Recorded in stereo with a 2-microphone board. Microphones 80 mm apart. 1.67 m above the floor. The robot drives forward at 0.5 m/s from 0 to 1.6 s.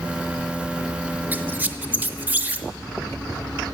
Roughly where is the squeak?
Right.